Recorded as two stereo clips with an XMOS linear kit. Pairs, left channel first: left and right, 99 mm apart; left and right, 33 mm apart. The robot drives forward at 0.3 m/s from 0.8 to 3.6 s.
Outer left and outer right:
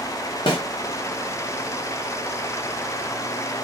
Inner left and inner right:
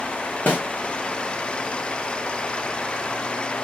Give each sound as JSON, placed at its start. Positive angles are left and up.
{"t": 0.5, "sound": "a snare drum", "side_deg": 55, "distance_m": 1.2}